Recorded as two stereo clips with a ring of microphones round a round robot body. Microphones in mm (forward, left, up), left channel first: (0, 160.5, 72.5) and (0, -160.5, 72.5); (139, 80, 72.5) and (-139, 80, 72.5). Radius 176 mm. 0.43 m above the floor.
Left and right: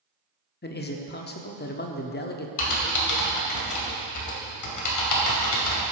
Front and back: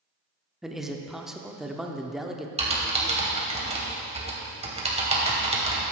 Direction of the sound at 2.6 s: 115° left.